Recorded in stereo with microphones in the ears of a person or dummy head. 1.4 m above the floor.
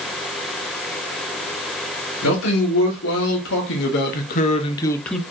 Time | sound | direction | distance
2.2 | a man speaking | 85° left | 1.6 m